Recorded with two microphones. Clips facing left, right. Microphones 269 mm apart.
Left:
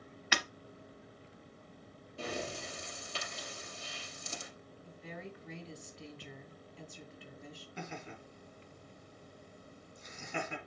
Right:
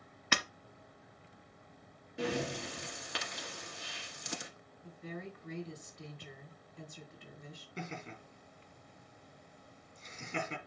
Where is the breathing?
80° right, 1.1 m.